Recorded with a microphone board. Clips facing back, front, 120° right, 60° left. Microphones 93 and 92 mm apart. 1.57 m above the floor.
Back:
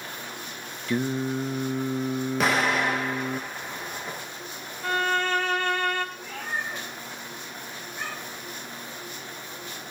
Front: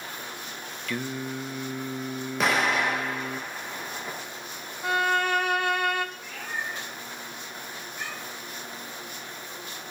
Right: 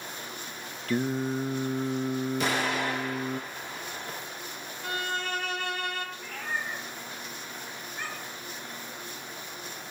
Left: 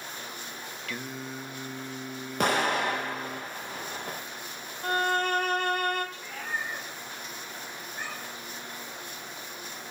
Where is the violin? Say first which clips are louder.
Front 1 dB, left 6 dB; 75° left, 1.8 m.